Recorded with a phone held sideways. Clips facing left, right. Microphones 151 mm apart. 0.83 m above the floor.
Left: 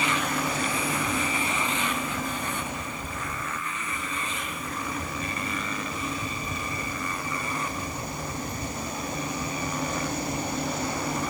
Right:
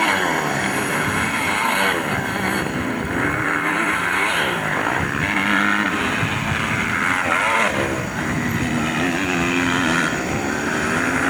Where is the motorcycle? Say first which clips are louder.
Right 7 dB; 65° right (ahead or behind); by 11.3 s 85° right.